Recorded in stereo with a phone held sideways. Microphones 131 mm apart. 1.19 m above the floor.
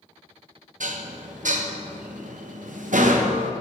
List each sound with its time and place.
0.8 s dishes clattering: 75° right (ahead or behind), 0.6 m